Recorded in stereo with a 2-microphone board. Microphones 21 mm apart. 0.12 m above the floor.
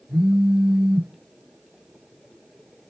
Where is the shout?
I don't hear a shout.